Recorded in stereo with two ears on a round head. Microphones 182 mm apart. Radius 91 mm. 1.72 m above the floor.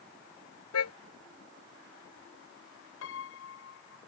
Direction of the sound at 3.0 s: 75° left (ahead or behind).